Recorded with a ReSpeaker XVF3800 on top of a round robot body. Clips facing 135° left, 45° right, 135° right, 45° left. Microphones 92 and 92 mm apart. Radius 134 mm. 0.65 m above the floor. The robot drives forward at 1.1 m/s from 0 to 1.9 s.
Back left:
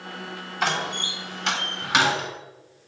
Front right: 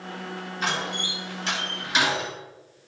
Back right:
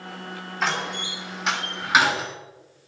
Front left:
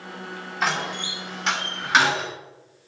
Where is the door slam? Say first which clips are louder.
Back left 3 dB, front left 1 dB; 130° left, 5 m; by 2.3 s 140° left, 6 m.